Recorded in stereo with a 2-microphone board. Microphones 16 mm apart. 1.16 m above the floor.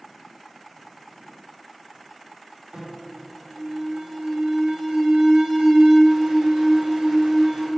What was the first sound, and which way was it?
An alarm, 80° right.